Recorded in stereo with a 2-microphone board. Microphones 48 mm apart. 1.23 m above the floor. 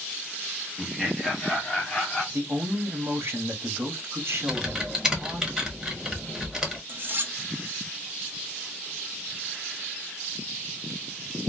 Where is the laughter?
15° right (ahead or behind), 0.5 m; by 2.2 s centre (ahead or behind), 1.2 m.